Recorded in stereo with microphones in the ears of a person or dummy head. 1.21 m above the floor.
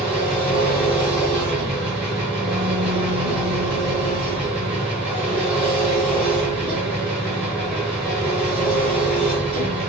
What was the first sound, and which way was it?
An engine running, centre (ahead or behind).